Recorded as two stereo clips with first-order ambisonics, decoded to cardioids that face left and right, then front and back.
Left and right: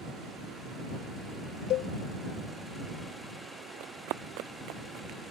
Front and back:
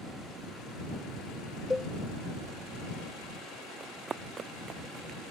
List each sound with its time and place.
1.7 s a cowbell: 75° left
3.8 s running footsteps: 105° right; by 5.2 s 120° right